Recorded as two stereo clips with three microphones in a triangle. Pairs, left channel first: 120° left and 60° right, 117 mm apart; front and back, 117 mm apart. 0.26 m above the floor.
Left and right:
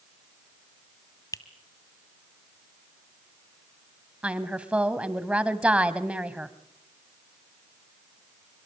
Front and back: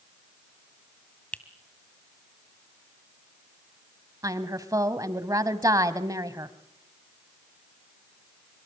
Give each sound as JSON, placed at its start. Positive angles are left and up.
{"t": 1.3, "sound": "a finger snap", "azimuth_deg": 75, "distance_m": 1.6}
{"t": 4.2, "sound": "a woman speaking", "azimuth_deg": -135, "distance_m": 1.3}